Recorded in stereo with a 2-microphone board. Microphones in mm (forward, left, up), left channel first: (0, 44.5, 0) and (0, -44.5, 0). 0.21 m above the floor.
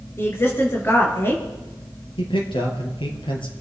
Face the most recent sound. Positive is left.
turn(degrees=70)  # may be behind; listen again after turning